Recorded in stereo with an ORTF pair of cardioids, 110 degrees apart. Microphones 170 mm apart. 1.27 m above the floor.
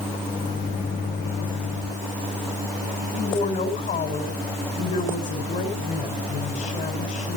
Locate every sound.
0.3 s a microwave: 50° left, 3.5 m
3.1 s a woman speaking: 45° left, 5.5 m